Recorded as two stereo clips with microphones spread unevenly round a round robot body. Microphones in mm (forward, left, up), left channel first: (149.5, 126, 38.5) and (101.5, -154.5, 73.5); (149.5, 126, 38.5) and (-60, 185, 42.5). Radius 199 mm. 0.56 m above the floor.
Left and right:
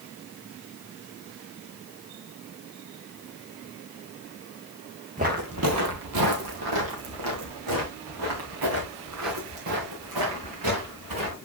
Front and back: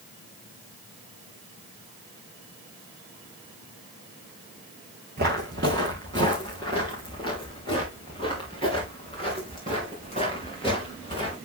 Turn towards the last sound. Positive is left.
turn(degrees=-125)